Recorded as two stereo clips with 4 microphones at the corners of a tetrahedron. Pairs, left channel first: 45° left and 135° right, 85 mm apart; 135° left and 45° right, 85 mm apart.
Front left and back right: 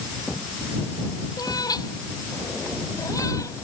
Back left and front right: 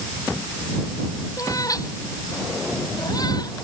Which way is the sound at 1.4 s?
85° left.